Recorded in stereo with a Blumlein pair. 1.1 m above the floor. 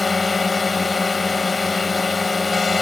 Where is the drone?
10° left.